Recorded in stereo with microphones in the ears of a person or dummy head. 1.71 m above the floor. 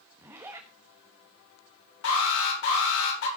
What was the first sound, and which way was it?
A zipper, 10° right (ahead or behind).